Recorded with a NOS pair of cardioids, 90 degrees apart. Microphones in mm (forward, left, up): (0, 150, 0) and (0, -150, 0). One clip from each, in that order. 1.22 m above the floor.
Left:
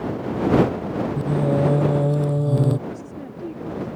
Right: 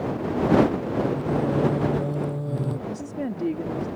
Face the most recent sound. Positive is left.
turn(degrees=-50)